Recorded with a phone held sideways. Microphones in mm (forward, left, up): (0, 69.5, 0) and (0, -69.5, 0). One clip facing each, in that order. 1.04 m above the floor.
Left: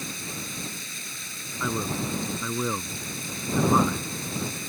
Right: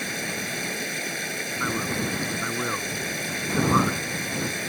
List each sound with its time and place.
0.0 s running water: 70° right (ahead or behind)
1.6 s a man speaking: 10° left (ahead or behind)